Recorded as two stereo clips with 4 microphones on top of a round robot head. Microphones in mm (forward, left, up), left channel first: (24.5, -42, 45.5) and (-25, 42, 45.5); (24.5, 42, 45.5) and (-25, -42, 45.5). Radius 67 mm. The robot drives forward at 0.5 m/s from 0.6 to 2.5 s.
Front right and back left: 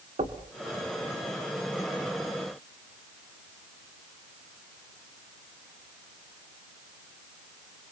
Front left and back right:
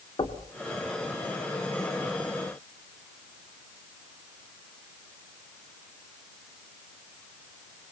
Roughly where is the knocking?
Left.